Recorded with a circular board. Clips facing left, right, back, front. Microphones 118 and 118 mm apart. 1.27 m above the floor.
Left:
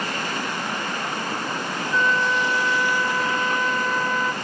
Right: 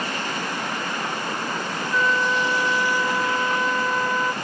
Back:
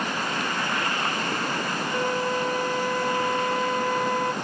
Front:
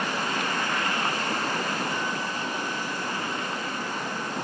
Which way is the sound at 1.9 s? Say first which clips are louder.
Even, back 5 dB; 170° right.